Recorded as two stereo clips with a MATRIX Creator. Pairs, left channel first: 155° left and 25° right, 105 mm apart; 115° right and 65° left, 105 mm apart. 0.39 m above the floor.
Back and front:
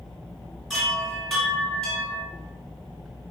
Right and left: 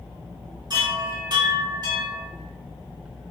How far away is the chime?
About 1.9 m.